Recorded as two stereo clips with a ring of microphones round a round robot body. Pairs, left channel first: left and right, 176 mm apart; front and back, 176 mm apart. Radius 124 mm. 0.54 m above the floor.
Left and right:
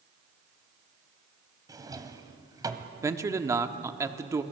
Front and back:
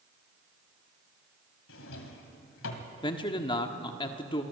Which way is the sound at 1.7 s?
20° right.